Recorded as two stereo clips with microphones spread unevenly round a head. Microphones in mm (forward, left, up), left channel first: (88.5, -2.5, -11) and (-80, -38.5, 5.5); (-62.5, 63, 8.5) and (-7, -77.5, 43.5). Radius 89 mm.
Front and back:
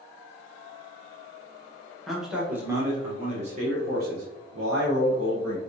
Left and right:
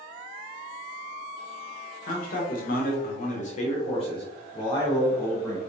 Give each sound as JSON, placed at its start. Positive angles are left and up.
{"t": 2.1, "sound": "a man speaking", "azimuth_deg": 100, "distance_m": 1.3}